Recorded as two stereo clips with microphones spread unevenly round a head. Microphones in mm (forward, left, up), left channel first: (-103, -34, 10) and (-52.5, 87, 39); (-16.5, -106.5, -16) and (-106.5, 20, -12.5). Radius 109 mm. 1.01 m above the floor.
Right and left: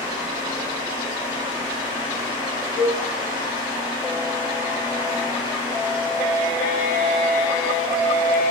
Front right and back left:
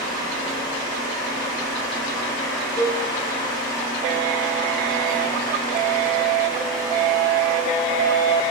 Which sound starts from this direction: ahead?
A fan, at 0.0 s.